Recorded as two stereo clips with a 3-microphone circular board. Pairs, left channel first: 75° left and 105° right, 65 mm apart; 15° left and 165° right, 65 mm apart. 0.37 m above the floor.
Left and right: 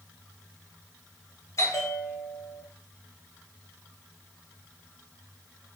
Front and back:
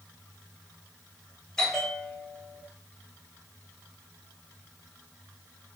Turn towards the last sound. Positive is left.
turn(degrees=90)